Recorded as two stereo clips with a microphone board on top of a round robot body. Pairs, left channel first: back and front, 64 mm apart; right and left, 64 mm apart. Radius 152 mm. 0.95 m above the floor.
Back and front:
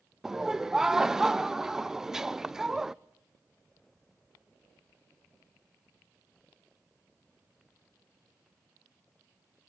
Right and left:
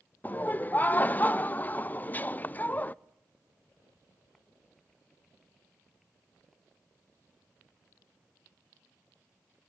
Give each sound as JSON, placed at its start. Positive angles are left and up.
{"t": 0.2, "sound": "laughter", "azimuth_deg": -75, "distance_m": 0.7}